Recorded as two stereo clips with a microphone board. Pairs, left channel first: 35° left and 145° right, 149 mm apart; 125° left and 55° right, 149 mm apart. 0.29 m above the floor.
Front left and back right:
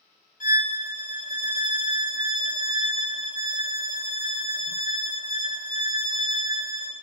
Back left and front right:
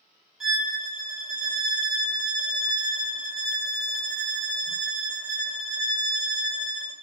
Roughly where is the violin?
Ahead left.